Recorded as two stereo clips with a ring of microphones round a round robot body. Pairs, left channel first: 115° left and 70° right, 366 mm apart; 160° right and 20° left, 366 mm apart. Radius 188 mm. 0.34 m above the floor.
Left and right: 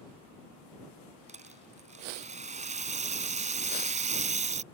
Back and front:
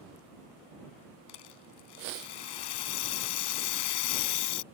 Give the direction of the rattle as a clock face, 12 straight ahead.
5 o'clock.